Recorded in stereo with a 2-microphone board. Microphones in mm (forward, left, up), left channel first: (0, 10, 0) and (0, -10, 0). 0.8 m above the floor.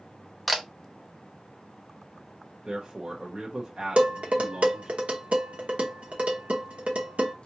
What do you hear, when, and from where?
0.5 s a camera shutter: centre (ahead or behind), 0.7 m
2.6 s a man speaking: 35° right (ahead or behind), 1.0 m
4.0 s dishes clattering: 85° right, 0.9 m